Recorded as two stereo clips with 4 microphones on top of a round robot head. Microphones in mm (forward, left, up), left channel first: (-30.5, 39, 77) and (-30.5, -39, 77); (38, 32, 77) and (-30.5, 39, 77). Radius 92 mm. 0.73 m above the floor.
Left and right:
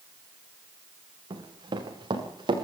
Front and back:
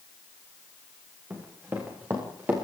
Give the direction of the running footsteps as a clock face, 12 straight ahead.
4 o'clock.